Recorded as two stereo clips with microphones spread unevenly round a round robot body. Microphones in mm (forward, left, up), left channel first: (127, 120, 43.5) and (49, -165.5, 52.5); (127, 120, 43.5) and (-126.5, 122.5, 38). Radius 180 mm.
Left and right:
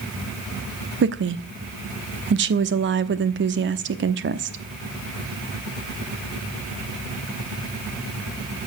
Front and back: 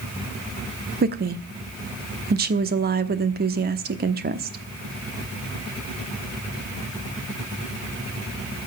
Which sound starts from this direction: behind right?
A woman speaking, at 1.0 s.